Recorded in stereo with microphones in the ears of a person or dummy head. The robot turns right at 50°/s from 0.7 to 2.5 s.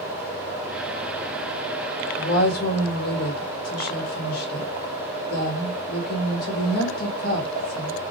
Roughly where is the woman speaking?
Left.